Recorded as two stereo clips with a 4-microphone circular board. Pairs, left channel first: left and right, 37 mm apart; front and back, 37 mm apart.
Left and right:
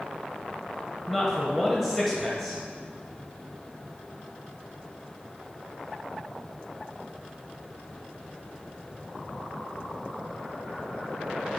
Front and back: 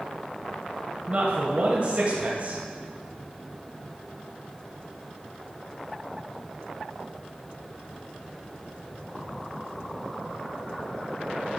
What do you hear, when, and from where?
1.1 s a man speaking: straight behind, 1.3 m